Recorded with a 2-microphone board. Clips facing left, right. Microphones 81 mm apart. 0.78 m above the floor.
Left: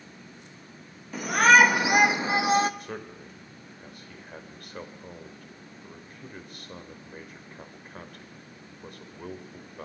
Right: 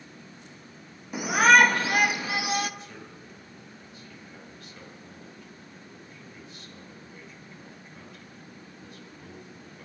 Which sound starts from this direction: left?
A man speaking, at 2.8 s.